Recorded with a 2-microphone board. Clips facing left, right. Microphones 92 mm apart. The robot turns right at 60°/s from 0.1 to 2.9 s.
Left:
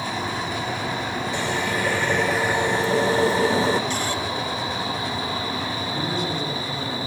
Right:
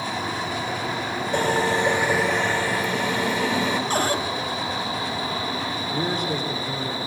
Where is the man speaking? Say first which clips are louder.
Right 2 dB; 50° right (ahead or behind), 9 m.